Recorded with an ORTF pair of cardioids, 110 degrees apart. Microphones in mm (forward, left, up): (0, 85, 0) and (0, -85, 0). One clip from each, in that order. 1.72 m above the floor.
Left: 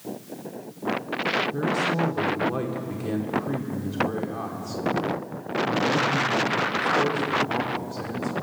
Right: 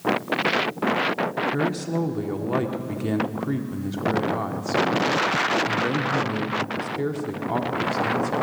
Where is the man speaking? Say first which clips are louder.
Left 1 dB; 30° right, 1.6 m.